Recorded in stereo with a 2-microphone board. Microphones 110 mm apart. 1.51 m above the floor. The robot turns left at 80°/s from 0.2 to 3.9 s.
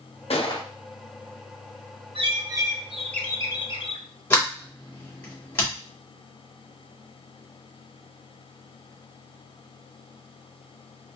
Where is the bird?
110° right, 0.7 m; by 4.0 s 110° left, 0.7 m.